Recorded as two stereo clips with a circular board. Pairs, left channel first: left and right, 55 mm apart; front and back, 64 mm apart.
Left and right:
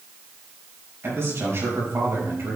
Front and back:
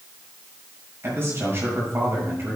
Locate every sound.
1.0 s a man speaking: 130° right, 6.5 m